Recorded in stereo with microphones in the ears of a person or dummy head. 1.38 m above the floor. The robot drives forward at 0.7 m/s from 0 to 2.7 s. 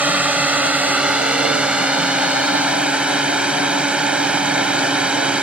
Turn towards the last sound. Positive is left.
turn(degrees=-5)  # may be behind; listen again after turning